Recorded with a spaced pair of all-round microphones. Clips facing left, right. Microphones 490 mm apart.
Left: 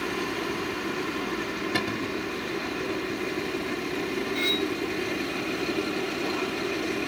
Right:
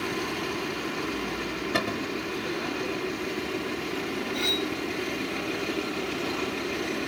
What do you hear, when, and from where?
1.7 s a cupboard door: 5° left (ahead or behind)
4.3 s cutlery clinking: 20° right (ahead or behind)